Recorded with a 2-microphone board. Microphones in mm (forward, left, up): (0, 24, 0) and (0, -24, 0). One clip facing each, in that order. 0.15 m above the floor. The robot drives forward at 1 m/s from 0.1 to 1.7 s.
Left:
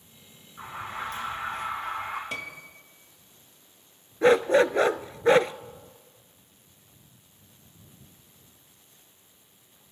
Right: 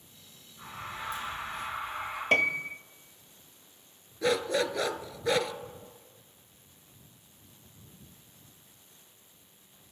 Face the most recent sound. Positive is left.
turn(degrees=35)  # may be behind; listen again after turning